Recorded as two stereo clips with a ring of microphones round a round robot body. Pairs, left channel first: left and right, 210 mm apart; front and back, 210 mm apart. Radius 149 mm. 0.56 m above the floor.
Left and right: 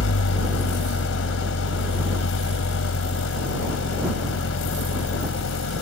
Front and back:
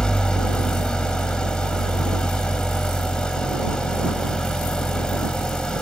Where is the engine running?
85° left.